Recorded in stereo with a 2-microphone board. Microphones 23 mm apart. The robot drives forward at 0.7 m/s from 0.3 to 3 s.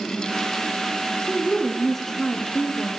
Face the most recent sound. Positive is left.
turn(degrees=15)  # may be behind; listen again after turning